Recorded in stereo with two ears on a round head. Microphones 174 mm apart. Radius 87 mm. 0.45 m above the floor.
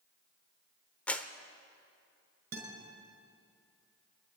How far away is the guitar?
About 5 m.